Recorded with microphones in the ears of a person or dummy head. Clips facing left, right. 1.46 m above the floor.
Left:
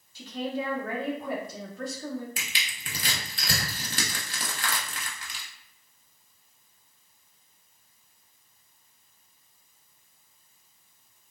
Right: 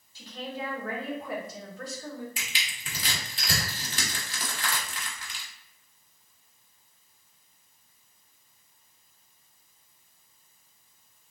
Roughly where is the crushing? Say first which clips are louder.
Left 1 dB; left.